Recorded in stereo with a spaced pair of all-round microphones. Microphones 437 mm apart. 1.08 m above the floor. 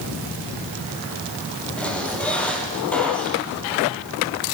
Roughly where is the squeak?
Centre.